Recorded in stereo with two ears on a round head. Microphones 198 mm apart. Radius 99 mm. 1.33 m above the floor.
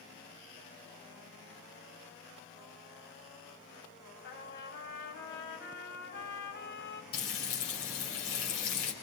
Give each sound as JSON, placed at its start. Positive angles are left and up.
{"t": 4.2, "sound": "a trumpet", "side_deg": 50, "distance_m": 4.5}
{"t": 7.1, "sound": "frying", "side_deg": 65, "distance_m": 5.5}